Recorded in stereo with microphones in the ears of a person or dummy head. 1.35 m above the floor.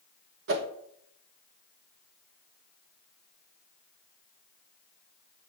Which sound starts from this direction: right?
A whoosh, at 0.5 s.